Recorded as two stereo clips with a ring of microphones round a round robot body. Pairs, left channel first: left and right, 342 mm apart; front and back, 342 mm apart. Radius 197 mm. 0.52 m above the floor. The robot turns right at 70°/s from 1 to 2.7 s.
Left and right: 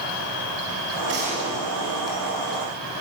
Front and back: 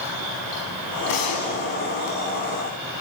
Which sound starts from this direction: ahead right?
A gunshot, at 1.1 s.